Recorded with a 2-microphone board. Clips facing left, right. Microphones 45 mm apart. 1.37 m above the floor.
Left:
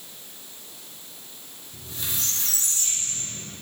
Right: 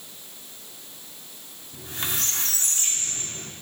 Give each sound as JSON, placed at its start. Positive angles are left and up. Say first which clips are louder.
{"t": 1.7, "sound": "a squeak", "louder": "right 4 dB", "side_deg": -55, "distance_m": 2.5}